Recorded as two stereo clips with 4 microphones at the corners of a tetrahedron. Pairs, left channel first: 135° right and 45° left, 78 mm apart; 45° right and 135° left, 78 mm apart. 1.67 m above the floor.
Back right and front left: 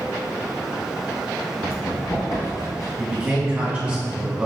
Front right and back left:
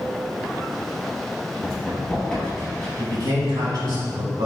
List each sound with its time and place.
1.6 s running footsteps: 125° right, 1.9 m; by 2.9 s 135° right, 2.5 m
3.0 s a man speaking: 120° left, 1.6 m